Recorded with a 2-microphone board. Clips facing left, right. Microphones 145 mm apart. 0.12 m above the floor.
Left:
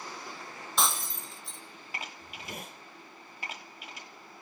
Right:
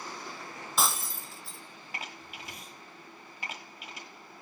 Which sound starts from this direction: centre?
Breaking glass, at 0.8 s.